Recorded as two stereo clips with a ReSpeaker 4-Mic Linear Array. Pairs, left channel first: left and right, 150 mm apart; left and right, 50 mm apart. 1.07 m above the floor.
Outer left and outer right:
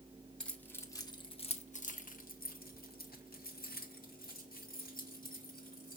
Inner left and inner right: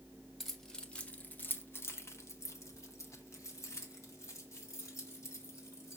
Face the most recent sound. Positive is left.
turn(degrees=70)  # may be behind; listen again after turning